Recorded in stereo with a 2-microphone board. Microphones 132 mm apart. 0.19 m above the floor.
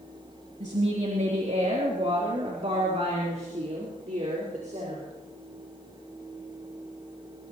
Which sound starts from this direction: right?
A woman speaking, at 0.6 s.